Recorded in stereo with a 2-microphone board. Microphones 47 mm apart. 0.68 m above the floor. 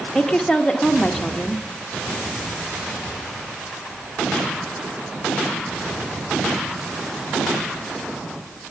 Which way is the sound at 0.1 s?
10° left (ahead or behind).